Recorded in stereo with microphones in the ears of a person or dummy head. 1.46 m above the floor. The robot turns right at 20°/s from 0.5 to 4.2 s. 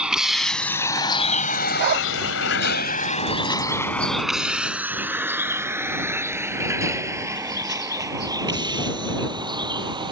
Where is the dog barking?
55° right (ahead or behind); by 2.1 s 50° right (ahead or behind).